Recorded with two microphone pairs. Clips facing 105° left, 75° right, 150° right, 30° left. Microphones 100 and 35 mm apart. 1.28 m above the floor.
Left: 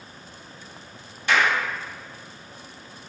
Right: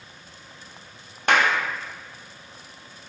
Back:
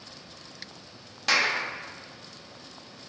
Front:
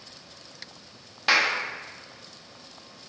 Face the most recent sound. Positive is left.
turn(degrees=-40)